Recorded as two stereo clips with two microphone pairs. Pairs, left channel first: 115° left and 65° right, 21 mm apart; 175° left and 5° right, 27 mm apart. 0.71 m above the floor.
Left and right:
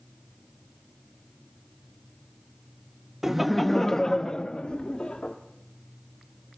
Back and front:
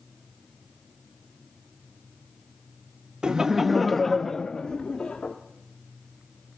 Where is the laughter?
5° right, 0.5 m; by 5.4 s 125° left, 1.2 m.